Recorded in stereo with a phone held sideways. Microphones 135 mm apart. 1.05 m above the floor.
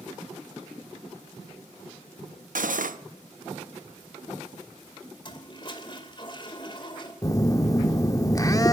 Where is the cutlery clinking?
80° right, 0.8 m.